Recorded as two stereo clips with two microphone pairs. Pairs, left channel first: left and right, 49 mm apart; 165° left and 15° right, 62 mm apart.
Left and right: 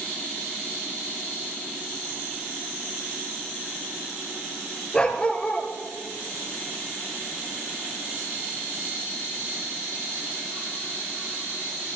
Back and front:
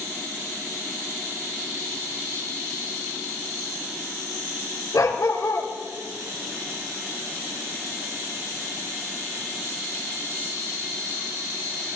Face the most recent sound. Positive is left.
turn(degrees=160)